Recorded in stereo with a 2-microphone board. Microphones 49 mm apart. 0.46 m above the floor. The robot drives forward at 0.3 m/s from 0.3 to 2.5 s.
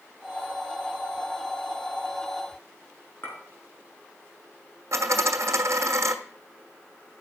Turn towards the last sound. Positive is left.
turn(degrees=-65)  # may be behind; listen again after turning